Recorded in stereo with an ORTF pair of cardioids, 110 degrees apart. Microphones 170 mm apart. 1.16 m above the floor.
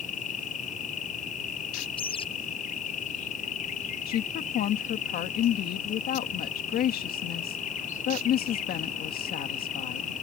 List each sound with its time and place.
0.0 s an insect: 50° left
2.0 s a bird: 30° left
4.1 s a woman speaking: 65° left